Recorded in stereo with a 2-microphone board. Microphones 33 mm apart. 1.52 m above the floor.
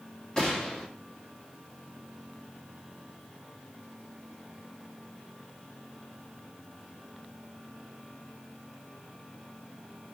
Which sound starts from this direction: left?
A gunshot, at 0.4 s.